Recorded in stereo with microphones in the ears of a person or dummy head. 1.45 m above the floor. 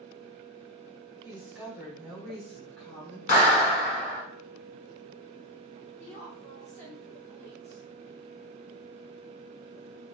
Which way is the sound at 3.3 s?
40° left (ahead or behind).